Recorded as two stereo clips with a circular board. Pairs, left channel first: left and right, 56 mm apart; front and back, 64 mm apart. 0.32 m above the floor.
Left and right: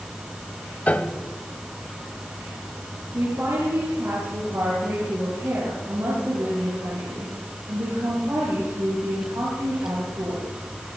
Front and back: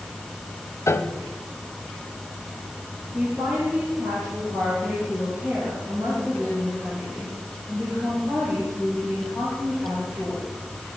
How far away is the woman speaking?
About 7 m.